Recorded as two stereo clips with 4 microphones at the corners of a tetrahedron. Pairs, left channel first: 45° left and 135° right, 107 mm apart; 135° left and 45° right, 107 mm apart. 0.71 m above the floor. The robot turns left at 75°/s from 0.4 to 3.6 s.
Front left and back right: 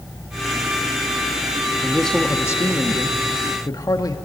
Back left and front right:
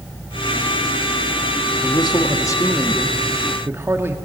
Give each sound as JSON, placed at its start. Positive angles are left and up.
{"t": 1.8, "sound": "a man speaking", "azimuth_deg": 145, "distance_m": 1.5}